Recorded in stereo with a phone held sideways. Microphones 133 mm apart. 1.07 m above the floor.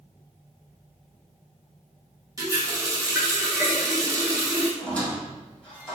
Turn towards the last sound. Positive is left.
turn(degrees=10)  # may be behind; listen again after turning